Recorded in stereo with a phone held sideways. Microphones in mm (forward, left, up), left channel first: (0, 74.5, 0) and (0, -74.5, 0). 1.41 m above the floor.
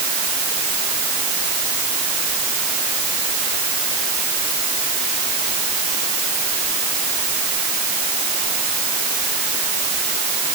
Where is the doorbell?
I don't hear a doorbell.